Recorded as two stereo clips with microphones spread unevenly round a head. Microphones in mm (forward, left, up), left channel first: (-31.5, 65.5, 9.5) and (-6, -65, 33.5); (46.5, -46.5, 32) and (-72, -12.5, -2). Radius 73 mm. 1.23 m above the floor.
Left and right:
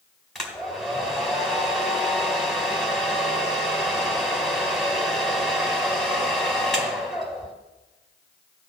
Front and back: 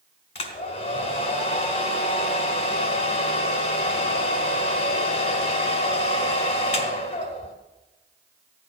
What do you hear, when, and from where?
0.3 s a hair dryer: 5° left, 1.8 m